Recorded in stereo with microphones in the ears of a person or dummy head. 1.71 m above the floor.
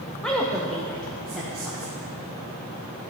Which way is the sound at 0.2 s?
Centre (ahead or behind).